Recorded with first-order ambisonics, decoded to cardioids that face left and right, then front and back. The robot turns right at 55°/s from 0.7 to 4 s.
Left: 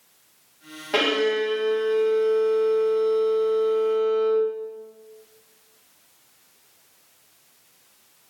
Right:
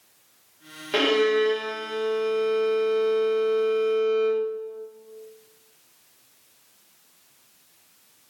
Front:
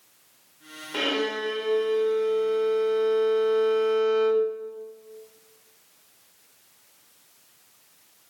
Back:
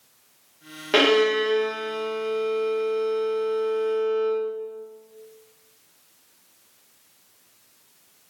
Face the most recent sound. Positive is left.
turn(degrees=-15)